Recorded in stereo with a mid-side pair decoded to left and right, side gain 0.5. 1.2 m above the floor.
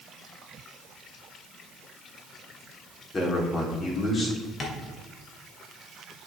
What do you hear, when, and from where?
3.1 s a man speaking: 35° left, 3.5 m
4.6 s tapping: 40° left, 2 m